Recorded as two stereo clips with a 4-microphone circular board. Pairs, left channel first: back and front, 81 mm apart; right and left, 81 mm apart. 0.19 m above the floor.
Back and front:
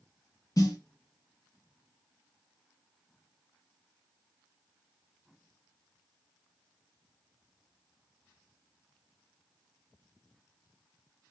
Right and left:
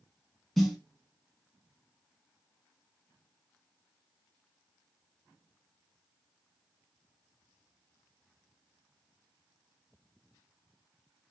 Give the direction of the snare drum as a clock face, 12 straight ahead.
6 o'clock.